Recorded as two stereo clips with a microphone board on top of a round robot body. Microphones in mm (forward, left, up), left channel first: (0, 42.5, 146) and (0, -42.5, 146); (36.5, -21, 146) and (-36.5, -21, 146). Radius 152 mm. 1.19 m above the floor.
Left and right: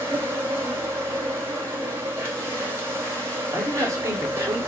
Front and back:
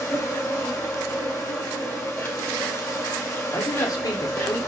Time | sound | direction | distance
0.0 | an insect | 40° right | 1.5 m
3.5 | a man speaking | 35° right | 1.1 m